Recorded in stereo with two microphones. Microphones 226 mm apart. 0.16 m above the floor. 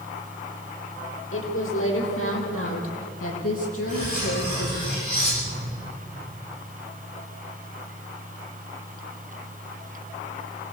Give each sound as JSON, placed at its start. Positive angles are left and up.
{"t": 1.3, "sound": "a woman speaking", "side_deg": 70, "distance_m": 6.0}
{"t": 3.9, "sound": "cutlery clinking", "side_deg": -30, "distance_m": 9.5}